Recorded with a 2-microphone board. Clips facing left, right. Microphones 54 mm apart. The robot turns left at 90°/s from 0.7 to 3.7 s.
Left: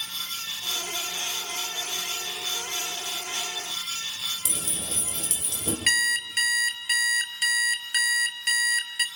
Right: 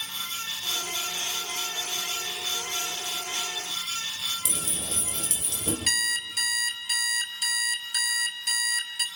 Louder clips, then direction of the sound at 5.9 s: Left 9 dB; 50° left (ahead or behind).